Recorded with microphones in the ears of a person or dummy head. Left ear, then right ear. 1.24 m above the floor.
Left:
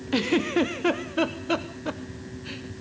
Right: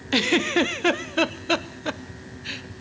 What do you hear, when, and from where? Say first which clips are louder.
0.1 s a giggle: right 3 dB; 40° right (ahead or behind), 0.8 m